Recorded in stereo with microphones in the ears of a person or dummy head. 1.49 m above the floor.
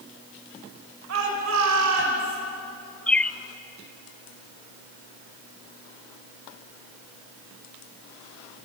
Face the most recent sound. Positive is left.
turn(degrees=10)  # may be behind; listen again after turning